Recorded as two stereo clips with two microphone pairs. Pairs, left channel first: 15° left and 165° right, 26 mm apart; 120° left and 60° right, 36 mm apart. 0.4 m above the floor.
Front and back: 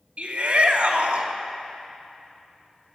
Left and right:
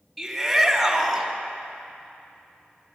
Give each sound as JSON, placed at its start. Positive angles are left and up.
{"t": 0.2, "sound": "a shout", "azimuth_deg": -145, "distance_m": 3.0}